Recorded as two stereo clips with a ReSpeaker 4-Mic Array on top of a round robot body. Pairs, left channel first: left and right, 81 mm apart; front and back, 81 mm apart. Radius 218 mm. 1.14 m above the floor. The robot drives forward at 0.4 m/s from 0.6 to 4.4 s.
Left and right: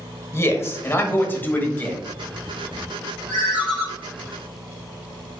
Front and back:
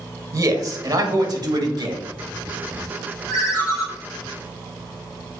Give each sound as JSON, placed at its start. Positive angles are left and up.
{"t": 0.3, "sound": "a man speaking", "azimuth_deg": 140, "distance_m": 1.1}
{"t": 3.3, "sound": "a ringtone", "azimuth_deg": -90, "distance_m": 0.6}